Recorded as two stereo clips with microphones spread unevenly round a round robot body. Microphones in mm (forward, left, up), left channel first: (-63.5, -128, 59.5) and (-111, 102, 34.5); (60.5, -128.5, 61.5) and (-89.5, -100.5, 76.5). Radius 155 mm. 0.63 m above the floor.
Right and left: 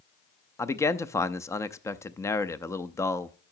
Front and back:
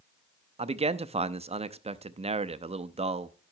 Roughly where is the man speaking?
Behind.